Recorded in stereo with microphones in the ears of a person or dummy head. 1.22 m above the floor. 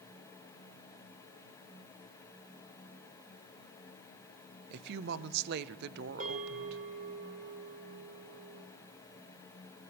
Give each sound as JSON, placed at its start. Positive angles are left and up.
{"t": 4.7, "sound": "a woman speaking", "side_deg": -60, "distance_m": 0.6}
{"t": 6.2, "sound": "a bell", "side_deg": -40, "distance_m": 1.8}